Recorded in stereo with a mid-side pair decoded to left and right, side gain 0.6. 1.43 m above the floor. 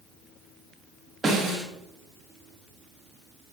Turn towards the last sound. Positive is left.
turn(degrees=-20)